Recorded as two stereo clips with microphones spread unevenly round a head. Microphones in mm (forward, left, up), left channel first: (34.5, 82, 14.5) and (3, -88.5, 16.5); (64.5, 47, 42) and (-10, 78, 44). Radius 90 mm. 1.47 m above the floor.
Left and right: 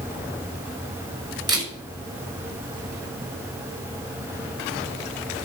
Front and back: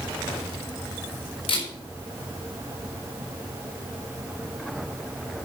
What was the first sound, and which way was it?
A camera shutter, 30° right.